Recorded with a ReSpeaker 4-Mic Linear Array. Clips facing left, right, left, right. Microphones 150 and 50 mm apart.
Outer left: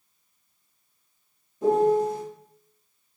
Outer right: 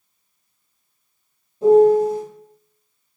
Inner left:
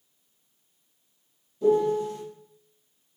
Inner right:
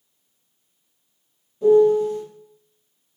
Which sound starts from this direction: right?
A piano, at 1.6 s.